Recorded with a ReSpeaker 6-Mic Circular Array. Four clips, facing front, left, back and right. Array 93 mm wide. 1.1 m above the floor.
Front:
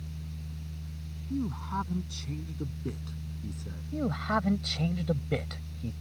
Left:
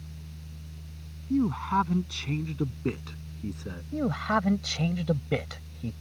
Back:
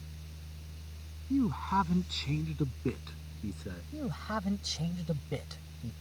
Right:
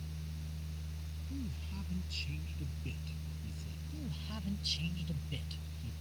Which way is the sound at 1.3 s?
105° left.